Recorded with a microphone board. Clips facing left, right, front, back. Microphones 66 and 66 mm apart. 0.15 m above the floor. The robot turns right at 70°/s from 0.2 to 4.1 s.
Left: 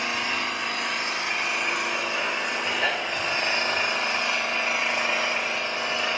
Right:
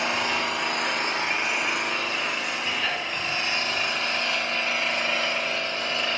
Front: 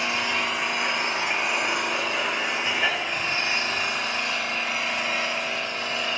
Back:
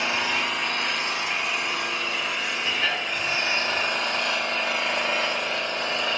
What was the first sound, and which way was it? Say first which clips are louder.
An engine running: right 2 dB, even; 110° right.